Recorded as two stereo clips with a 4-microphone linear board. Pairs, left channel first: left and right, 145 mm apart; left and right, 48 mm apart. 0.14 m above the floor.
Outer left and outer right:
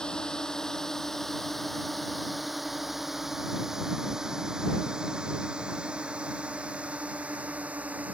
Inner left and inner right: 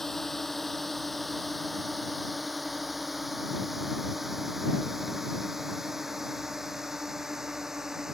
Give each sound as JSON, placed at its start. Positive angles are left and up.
{"t": 0.0, "sound": "a drone", "side_deg": 5}